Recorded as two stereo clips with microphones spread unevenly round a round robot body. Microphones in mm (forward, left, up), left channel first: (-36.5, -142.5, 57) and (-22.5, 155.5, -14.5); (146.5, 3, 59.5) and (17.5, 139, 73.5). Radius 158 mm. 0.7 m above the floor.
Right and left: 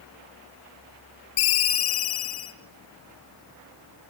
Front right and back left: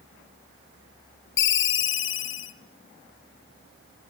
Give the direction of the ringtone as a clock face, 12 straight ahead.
1 o'clock.